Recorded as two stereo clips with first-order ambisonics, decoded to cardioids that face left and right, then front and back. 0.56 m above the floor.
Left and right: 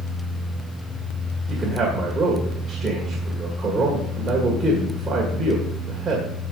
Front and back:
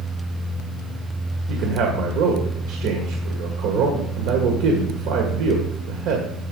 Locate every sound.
1.5 s a man speaking: 160° right, 1.7 m